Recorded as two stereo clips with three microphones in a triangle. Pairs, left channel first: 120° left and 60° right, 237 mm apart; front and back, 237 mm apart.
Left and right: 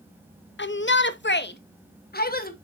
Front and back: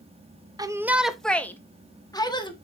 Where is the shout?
110° left, 0.7 m; by 2.5 s 70° left, 1.5 m.